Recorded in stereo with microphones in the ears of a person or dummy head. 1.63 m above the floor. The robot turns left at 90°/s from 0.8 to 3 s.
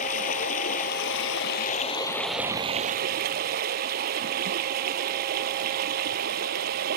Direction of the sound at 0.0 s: 130° left.